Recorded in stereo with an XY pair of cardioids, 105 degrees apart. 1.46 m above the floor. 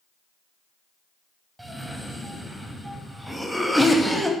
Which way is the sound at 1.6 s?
5° right.